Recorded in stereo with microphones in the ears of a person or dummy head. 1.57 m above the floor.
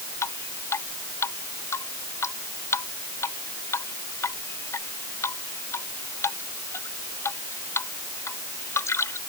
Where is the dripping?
15° left (ahead or behind).